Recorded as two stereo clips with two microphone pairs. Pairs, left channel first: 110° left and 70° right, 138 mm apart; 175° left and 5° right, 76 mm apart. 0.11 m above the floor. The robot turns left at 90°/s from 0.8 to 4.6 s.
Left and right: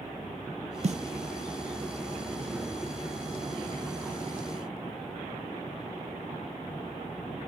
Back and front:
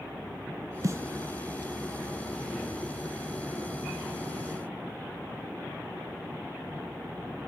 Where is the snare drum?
45° right, 1.7 m; by 1.0 s 60° right, 1.7 m.